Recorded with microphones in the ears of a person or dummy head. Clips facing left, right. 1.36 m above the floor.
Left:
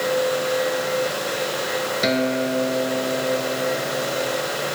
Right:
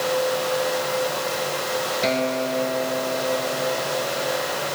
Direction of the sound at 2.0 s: 20° left (ahead or behind).